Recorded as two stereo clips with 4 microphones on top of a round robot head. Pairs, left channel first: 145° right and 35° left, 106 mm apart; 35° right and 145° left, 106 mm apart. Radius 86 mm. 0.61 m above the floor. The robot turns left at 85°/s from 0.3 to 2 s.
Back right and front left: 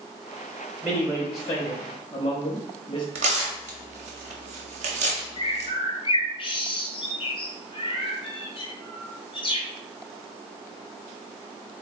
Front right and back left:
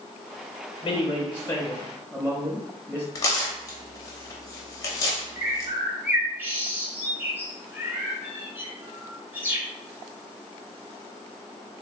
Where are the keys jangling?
I don't hear keys jangling.